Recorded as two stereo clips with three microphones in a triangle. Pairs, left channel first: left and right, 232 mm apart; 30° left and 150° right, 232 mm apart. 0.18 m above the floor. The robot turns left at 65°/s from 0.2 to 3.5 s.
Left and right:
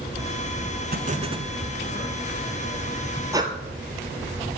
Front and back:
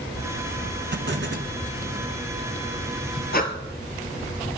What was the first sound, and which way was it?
An explosion, 125° right.